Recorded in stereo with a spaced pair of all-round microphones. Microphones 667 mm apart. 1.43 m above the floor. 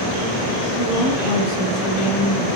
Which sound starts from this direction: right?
A woman speaking, at 0.8 s.